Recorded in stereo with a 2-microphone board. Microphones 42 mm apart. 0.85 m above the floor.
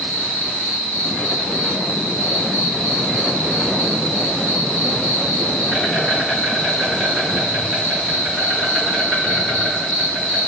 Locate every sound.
0.0 s an insect: 35° left (ahead or behind), 1.4 m